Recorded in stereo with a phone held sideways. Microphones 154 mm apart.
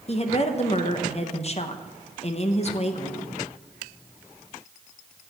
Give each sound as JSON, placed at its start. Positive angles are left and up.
{"t": 0.1, "sound": "a woman speaking", "side_deg": 45, "distance_m": 0.7}